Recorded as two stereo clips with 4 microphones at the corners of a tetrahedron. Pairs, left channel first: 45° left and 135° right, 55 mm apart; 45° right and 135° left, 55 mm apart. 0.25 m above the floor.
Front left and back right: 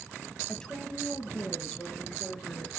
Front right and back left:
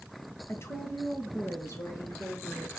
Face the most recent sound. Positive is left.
turn(degrees=-20)